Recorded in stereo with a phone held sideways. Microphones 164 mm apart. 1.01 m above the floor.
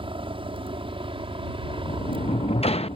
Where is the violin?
I don't hear a violin.